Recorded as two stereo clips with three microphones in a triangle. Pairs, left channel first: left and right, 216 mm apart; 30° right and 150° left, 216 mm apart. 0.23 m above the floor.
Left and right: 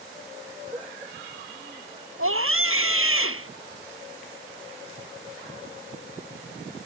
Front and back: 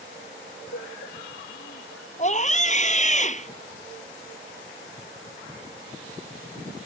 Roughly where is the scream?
Right.